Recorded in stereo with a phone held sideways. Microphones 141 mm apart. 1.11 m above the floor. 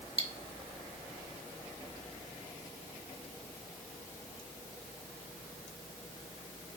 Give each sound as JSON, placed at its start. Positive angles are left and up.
{"t": 0.2, "sound": "cutlery clinking", "side_deg": -45, "distance_m": 1.1}